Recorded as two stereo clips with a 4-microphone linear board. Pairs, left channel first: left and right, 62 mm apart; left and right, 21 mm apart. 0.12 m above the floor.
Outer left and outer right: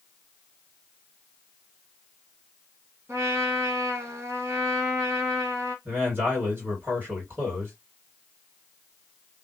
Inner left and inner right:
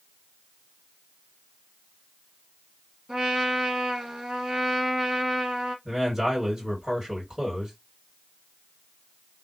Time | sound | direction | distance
3.1 | a trumpet | 50° right (ahead or behind) | 1.9 m
5.8 | a man speaking | 35° right (ahead or behind) | 2 m